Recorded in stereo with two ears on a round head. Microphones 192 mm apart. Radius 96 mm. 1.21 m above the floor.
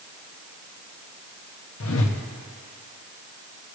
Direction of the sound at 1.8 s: 65° left (ahead or behind).